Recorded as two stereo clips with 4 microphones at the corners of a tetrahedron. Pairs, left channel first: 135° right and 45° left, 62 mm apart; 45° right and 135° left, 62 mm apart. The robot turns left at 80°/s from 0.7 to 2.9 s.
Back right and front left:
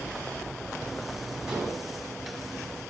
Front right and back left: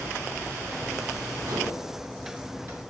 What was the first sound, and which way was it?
Dishes clattering, 125° left.